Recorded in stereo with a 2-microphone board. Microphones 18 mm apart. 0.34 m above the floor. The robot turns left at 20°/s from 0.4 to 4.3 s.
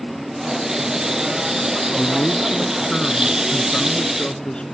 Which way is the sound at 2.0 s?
145° left.